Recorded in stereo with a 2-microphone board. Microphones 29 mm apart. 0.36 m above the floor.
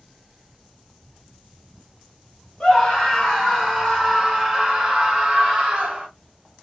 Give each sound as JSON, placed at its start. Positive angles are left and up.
{"t": 2.6, "sound": "a scream", "side_deg": 15, "distance_m": 1.2}